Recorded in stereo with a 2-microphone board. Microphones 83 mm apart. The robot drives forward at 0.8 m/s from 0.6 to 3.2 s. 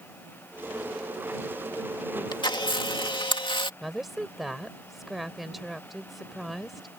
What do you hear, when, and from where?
2.3 s a camera shutter: 65° left (ahead or behind); by 3.7 s 80° left
3.8 s a woman speaking: centre (ahead or behind)